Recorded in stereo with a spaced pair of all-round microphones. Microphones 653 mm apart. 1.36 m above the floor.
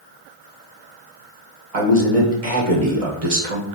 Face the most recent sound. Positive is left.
turn(degrees=-60)  # may be behind; listen again after turning